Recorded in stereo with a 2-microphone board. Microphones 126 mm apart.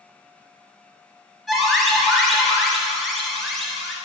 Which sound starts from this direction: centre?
An alarm, at 1.5 s.